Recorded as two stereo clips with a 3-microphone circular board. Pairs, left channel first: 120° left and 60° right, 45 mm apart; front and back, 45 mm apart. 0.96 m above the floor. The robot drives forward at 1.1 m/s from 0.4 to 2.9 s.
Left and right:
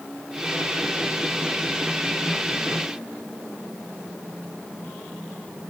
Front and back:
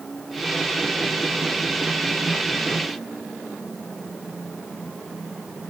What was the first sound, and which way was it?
Only background noise.